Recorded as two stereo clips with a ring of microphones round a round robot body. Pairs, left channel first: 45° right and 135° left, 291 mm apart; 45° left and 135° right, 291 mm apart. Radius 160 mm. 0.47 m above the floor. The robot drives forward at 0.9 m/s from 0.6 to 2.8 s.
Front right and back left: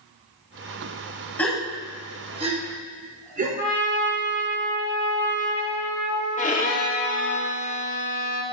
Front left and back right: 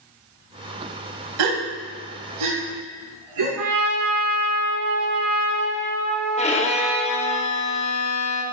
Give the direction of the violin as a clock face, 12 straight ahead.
12 o'clock.